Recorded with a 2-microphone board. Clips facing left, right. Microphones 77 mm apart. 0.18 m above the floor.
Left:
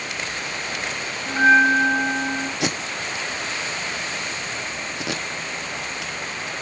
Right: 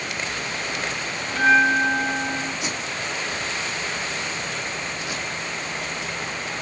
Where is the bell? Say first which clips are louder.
Left 2 dB; 25° left (ahead or behind), 0.8 m.